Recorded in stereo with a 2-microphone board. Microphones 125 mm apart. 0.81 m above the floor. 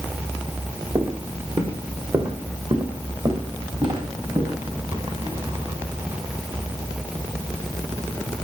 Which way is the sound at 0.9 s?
45° right (ahead or behind).